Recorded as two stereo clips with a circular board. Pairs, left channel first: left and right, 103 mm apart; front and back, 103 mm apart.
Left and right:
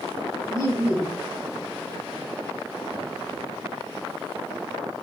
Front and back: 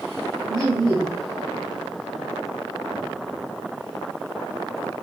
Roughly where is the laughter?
Behind left.